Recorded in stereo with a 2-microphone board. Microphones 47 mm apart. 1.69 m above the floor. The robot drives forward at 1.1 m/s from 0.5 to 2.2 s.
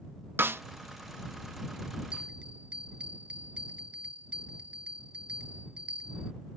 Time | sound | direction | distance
0.4 | a snare drum | 50° right (ahead or behind) | ?
2.1 | a bell | 25° right (ahead or behind) | ?